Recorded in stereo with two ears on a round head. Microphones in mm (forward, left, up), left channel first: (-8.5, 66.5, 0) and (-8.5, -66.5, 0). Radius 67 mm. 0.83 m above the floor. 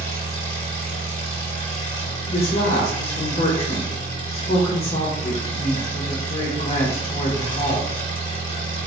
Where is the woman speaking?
40° left (ahead or behind), 0.7 m.